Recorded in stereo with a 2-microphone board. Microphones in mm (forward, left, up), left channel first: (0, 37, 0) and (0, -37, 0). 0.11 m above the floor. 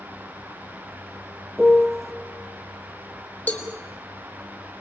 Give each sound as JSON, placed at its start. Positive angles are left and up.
{"t": 1.6, "sound": "a piano", "side_deg": 0, "distance_m": 2.0}
{"t": 3.5, "sound": "a cowbell", "side_deg": 25, "distance_m": 3.5}